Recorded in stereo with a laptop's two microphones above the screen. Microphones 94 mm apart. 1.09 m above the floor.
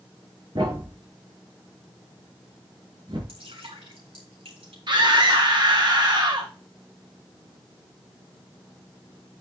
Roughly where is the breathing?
No breathing in this recording.